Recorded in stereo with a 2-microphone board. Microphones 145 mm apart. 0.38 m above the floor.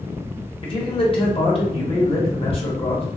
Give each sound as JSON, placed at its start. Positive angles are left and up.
{"t": 0.6, "sound": "a man speaking", "side_deg": 40, "distance_m": 1.1}